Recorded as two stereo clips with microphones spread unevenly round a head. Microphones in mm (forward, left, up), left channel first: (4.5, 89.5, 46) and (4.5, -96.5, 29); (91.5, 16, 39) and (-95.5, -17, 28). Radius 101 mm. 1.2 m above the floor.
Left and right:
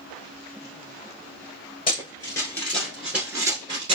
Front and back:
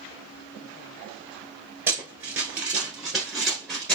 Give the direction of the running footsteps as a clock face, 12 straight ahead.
8 o'clock.